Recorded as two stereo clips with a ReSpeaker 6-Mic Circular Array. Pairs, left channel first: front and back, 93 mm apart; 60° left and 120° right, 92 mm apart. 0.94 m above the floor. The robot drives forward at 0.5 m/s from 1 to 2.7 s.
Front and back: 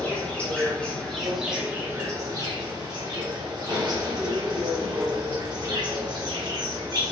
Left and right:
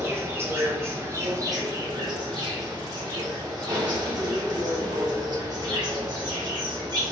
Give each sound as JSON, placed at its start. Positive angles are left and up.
{"t": 0.0, "sound": "an insect", "azimuth_deg": -70, "distance_m": 0.7}